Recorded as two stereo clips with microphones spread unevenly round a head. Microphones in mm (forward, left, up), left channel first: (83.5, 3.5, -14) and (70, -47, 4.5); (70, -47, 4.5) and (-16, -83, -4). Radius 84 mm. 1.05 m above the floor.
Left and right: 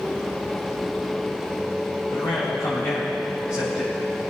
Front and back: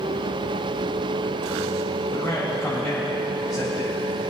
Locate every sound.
2.1 s a man speaking: 110° left, 5.5 m